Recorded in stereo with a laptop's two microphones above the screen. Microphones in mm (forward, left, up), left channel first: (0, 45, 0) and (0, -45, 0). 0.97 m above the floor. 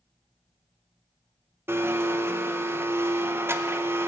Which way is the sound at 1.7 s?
30° right (ahead or behind).